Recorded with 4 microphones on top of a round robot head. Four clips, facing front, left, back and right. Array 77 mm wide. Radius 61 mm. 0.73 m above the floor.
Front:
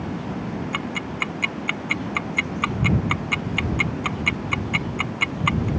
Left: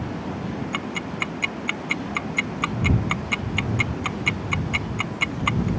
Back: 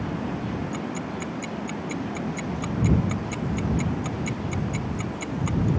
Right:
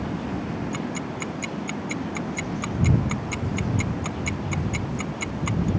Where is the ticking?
35° left.